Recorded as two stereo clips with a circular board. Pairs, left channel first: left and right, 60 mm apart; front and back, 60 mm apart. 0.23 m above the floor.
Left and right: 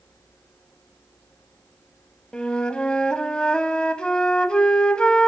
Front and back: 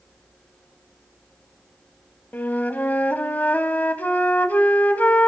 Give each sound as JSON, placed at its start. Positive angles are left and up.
{"t": 2.3, "sound": "a flute", "azimuth_deg": 30, "distance_m": 0.7}